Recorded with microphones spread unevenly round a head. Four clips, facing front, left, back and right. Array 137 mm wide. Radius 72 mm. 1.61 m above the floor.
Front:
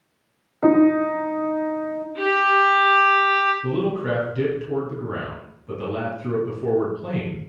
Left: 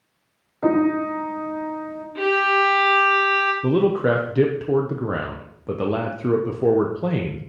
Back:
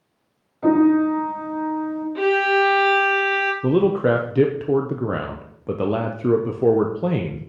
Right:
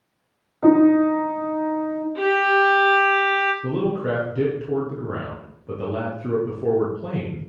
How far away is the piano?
About 1.6 m.